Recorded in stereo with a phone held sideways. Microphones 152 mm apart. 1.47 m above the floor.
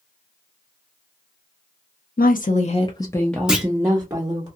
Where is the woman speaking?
70° left (ahead or behind), 0.6 m; by 4.5 s 30° right (ahead or behind), 1.0 m.